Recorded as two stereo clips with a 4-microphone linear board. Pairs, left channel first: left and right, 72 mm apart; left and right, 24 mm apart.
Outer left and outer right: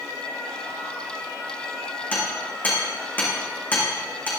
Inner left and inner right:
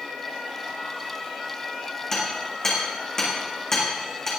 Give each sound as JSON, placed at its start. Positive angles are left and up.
{"t": 2.1, "sound": "hammering", "side_deg": 25, "distance_m": 6.5}